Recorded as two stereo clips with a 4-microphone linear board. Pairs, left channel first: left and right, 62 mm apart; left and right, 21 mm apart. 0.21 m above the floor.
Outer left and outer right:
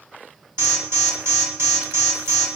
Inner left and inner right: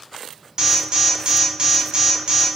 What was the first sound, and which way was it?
An alarm, 35° right (ahead or behind).